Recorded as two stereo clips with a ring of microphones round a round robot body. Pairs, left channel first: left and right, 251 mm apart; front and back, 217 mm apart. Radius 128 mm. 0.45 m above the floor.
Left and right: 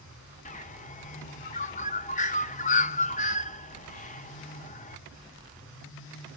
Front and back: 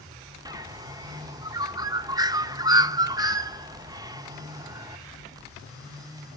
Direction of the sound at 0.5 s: 120° left.